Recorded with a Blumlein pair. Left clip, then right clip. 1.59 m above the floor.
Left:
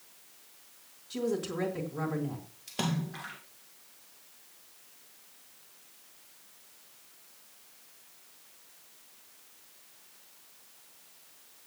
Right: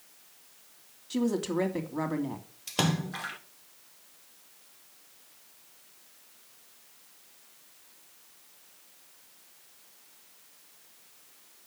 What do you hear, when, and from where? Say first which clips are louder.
1.1 s a woman speaking: right 3 dB; 65° right, 3 m
2.7 s a splash: right 5 dB; 40° right, 1.5 m